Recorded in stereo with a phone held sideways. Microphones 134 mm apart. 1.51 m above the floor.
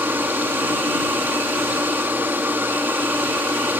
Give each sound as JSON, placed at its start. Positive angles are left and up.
{"t": 0.0, "sound": "a machine running", "side_deg": -15}